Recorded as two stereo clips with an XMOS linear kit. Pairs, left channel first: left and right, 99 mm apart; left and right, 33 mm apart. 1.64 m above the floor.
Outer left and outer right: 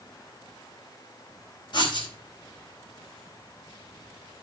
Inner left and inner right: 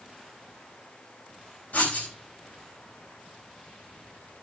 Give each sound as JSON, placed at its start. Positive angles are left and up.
{"t": 1.7, "sound": "writing", "side_deg": 55, "distance_m": 4.5}